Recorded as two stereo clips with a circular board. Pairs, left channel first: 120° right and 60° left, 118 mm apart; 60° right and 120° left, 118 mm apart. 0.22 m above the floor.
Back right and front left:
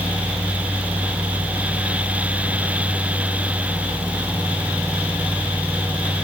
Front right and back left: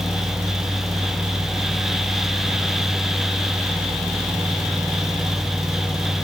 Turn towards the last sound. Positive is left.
No sound to turn to.